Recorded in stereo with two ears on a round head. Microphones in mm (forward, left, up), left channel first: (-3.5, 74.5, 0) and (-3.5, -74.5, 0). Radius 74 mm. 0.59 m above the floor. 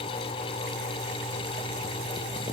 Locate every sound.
Only background noise.